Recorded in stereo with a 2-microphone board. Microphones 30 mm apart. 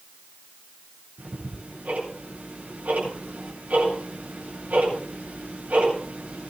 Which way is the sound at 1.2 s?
60° right (ahead or behind).